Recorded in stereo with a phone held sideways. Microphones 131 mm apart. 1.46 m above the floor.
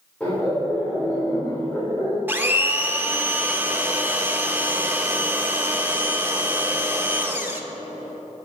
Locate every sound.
0.2 s laughter: 5° left (ahead or behind), 4 m; by 2.2 s 20° left (ahead or behind), 5 m
2.3 s a blender: 15° right (ahead or behind), 1.1 m